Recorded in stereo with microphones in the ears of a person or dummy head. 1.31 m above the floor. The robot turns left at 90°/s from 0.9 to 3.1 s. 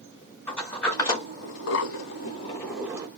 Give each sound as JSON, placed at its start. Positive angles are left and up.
{"t": 0.5, "sound": "a sliding door", "side_deg": 10, "distance_m": 1.0}